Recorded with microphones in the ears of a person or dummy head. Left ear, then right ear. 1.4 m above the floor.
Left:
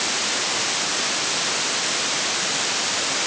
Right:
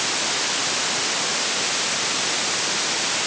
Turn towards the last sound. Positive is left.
No sound to turn to.